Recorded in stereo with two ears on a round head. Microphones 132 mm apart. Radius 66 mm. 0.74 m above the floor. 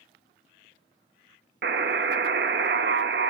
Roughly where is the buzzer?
Right.